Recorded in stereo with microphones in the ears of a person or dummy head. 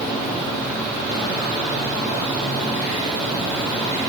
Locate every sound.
Only background noise.